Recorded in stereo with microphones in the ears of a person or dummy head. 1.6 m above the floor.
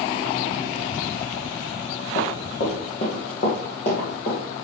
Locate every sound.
2.1 s running footsteps: 40° left (ahead or behind), 3 m